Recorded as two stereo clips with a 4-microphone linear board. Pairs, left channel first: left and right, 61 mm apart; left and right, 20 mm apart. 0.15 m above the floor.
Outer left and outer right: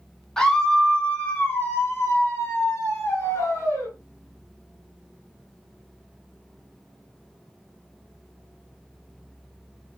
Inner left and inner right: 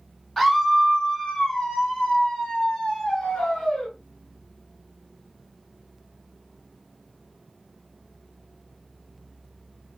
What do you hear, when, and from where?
0.4 s a scream: 10° left (ahead or behind), 1.2 m; by 3.9 s 60° left (ahead or behind), 2 m